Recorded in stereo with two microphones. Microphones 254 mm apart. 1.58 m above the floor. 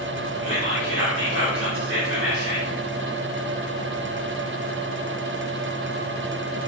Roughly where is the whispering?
Right.